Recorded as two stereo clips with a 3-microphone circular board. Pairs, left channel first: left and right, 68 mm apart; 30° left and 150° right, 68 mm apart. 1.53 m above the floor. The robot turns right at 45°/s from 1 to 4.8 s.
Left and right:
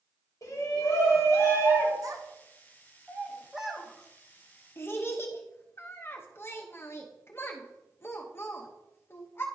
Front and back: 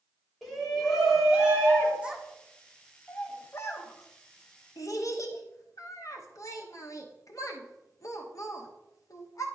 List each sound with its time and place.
0.4 s a shout: 120° left, 2.5 m; by 1.9 s 160° left, 2.5 m
2.0 s a child speaking: 80° right, 1.0 m; by 9.5 s 45° left, 1.0 m